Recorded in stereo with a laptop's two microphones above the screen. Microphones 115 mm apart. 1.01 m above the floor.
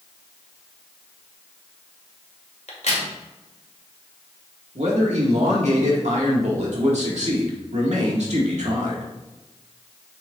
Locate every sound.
2.7 s a crack: 85° left, 2.0 m
4.8 s a man speaking: 80° right, 2 m